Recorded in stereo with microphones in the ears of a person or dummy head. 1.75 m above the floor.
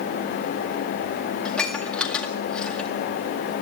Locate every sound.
1.4 s dishes clattering: 5° left (ahead or behind), 2 m